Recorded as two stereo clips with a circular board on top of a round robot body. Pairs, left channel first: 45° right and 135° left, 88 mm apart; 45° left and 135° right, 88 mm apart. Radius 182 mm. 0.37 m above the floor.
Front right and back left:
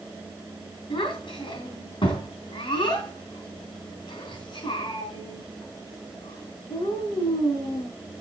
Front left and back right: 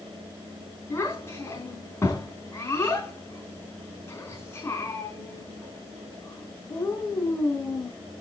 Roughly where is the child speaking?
Ahead.